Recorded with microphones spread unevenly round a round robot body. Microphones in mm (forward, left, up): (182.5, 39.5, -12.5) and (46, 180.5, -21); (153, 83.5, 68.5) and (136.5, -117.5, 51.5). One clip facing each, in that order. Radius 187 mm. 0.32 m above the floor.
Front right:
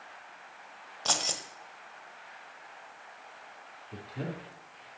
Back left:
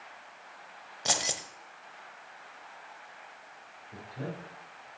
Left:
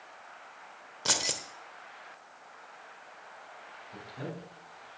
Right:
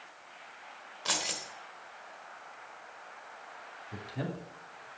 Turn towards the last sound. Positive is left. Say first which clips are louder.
# front right 1 dB, right 3 dB
turn(degrees=-95)